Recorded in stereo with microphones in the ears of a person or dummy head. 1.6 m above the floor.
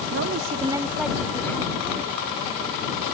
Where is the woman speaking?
60° right (ahead or behind); by 3.0 s 25° left (ahead or behind).